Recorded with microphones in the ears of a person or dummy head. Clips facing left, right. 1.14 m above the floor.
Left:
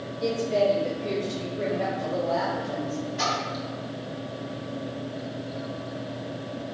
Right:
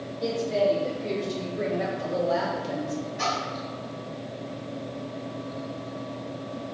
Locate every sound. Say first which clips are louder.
0.2 s a woman speaking: left 1 dB; centre (ahead or behind), 1.7 m; by 3.0 s 30° right (ahead or behind), 0.6 m
3.2 s a splash: left 1 dB; 65° left (ahead or behind), 1.4 m